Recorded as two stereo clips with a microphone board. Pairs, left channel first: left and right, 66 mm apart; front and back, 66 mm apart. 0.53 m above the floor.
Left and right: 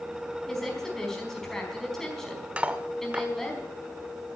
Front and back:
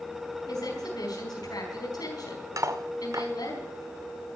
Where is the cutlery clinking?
160° right, 0.9 m.